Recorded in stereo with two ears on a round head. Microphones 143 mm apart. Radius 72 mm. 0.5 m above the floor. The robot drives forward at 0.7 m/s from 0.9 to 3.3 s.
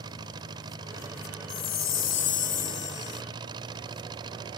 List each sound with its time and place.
0.0 s an engine running: 25° right (ahead or behind)
1.5 s a chime: 60° left (ahead or behind); by 3.2 s 50° left (ahead or behind)